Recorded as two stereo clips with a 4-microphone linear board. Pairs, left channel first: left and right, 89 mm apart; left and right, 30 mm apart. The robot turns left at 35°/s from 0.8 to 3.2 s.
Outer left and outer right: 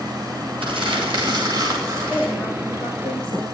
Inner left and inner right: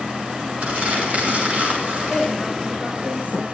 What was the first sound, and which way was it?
Crumpling, 105° right.